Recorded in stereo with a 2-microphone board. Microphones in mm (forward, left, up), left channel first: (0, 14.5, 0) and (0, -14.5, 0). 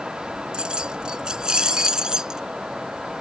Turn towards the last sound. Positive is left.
turn(degrees=-20)  # may be behind; listen again after turning